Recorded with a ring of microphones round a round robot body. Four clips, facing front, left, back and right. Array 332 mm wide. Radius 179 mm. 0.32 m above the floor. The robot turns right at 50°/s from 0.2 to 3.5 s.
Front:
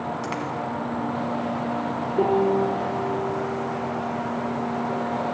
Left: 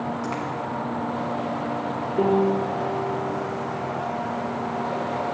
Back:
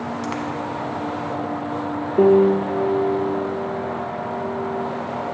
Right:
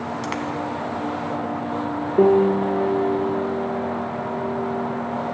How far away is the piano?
About 1.3 m.